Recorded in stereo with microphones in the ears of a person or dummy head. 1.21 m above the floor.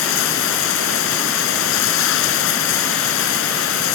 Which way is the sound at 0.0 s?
75° left (ahead or behind).